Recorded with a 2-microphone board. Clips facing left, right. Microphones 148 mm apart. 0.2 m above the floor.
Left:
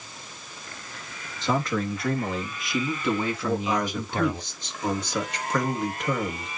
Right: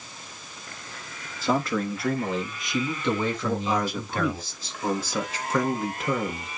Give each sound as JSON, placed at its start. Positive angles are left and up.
{"t": 1.4, "sound": "a man speaking", "side_deg": -5, "distance_m": 3.5}
{"t": 3.4, "sound": "a man speaking", "side_deg": -5, "distance_m": 3.0}